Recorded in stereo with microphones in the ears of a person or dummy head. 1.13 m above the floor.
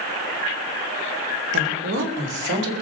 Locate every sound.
1.5 s a woman speaking: 65° right (ahead or behind), 3.5 m